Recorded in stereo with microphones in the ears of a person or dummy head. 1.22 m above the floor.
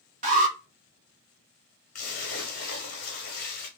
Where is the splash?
45° left (ahead or behind), 1.1 m.